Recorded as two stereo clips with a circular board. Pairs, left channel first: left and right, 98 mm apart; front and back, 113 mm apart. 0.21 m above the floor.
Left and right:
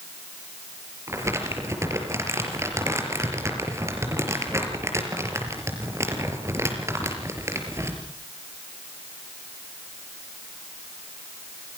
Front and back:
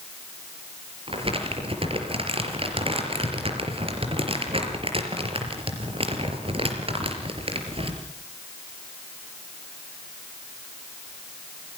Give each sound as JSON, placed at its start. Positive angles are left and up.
{"t": 1.1, "sound": "crumpling", "azimuth_deg": -150, "distance_m": 4.0}